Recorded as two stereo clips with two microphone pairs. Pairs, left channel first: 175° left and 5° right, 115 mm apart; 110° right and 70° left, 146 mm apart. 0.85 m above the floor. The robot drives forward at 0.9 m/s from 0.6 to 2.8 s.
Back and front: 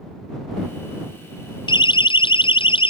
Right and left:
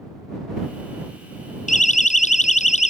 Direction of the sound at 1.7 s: 140° right.